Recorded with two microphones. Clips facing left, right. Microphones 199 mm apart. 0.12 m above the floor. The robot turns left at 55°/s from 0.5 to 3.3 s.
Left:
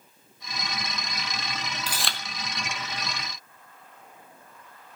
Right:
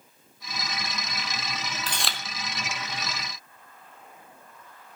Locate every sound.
1.9 s chewing: 10° left (ahead or behind), 0.9 m; by 2.2 s 10° right (ahead or behind), 0.9 m